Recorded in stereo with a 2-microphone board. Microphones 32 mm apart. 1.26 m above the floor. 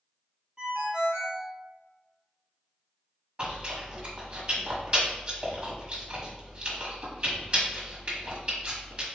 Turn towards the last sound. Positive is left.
turn(degrees=-40)  # may be behind; listen again after turning